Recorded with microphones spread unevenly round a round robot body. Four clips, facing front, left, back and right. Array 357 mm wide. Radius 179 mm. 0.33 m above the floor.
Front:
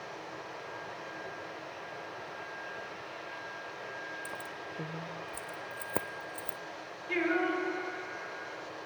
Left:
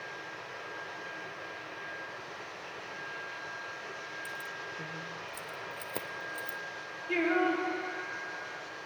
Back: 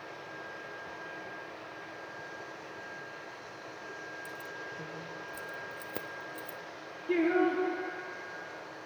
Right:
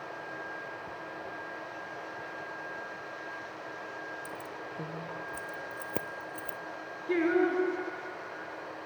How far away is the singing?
About 4 m.